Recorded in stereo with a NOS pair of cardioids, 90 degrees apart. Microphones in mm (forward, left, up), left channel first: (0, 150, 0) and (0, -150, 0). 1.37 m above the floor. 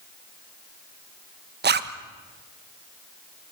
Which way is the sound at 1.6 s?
35° right.